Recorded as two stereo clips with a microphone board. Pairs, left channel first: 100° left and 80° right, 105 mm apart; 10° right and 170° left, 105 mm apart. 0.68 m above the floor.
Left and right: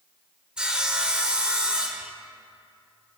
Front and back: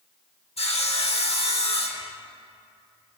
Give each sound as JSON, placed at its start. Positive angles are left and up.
{"t": 0.6, "sound": "sawing", "azimuth_deg": 5, "distance_m": 1.2}